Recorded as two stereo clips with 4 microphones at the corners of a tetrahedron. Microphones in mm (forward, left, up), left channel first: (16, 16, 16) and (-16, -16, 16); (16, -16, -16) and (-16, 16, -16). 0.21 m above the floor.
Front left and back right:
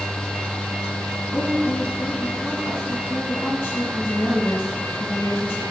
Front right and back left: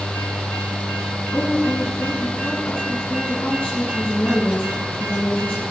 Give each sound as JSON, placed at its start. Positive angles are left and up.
{"t": 1.3, "sound": "a woman speaking", "azimuth_deg": 0, "distance_m": 2.0}